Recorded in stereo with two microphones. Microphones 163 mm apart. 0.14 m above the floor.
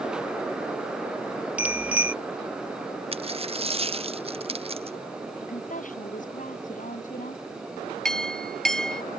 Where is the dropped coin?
40° right (ahead or behind).